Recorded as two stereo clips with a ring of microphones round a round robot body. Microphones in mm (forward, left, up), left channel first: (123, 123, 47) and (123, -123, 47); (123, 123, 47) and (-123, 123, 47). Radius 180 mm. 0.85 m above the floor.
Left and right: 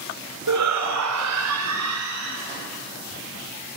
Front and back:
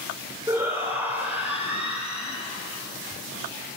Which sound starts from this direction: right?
A shout, at 0.5 s.